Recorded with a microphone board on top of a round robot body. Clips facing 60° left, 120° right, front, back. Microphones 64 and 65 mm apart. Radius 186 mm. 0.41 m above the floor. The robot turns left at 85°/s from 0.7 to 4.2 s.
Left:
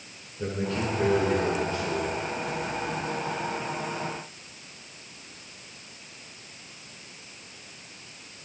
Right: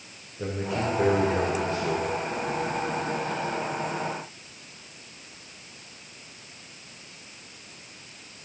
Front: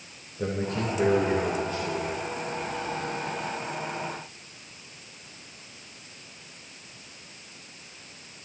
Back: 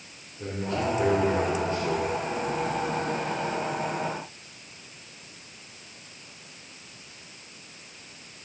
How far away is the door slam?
No door slam in this recording.